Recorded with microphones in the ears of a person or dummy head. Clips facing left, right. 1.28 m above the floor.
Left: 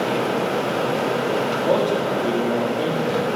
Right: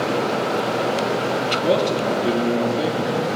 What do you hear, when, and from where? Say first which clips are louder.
1.6 s a man speaking: right 1 dB; 35° right (ahead or behind), 2 m; by 3.3 s 10° right (ahead or behind), 2 m